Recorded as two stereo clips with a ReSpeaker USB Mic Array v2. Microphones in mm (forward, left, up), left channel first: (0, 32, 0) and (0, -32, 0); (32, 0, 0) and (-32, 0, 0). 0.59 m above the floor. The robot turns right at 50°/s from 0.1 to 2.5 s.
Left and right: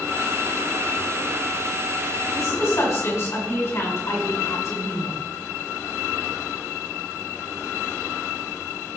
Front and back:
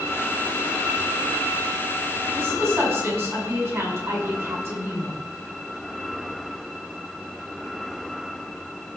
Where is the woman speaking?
125° left, 6 m; by 5.1 s 130° left, 6 m.